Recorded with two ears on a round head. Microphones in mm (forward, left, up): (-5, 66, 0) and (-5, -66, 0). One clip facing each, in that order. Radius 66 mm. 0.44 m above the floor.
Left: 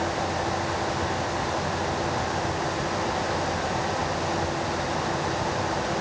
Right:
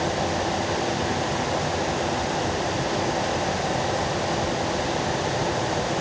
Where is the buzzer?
I don't hear a buzzer.